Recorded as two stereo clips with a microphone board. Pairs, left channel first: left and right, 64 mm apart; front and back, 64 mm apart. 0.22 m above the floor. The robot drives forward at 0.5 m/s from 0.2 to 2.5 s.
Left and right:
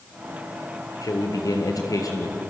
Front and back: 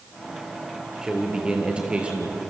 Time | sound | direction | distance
1.0 | a man speaking | 100° left | 5 m